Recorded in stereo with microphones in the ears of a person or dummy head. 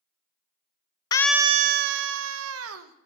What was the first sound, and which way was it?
A scream, 25° left (ahead or behind).